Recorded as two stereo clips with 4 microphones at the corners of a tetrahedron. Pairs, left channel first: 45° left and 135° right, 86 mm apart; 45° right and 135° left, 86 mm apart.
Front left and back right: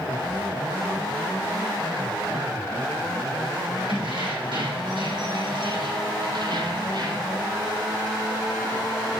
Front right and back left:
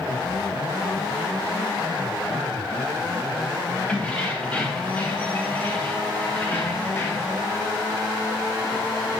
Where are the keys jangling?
120° right, 4.5 m; by 7.4 s 100° right, 2.5 m.